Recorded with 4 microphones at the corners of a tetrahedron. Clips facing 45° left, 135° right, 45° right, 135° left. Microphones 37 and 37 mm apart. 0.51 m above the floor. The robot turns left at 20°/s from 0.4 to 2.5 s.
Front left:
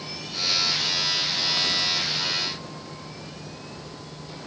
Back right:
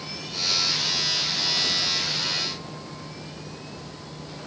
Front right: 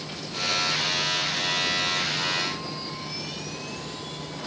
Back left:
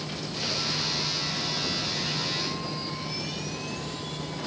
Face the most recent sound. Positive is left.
No sound to turn to.